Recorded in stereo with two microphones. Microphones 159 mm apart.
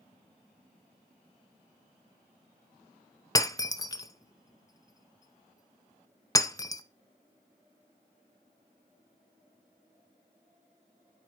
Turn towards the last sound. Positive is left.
turn(degrees=25)  # may be behind; listen again after turning